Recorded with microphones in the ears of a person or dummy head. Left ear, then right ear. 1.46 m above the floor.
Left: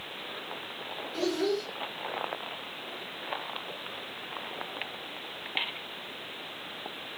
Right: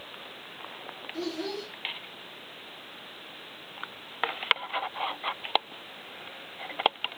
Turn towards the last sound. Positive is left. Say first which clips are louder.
# left 5 dB
turn(degrees=-5)  # may be behind; listen again after turning